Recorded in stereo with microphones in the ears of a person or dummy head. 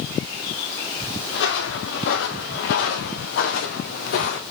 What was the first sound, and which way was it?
Footsteps, 80° left.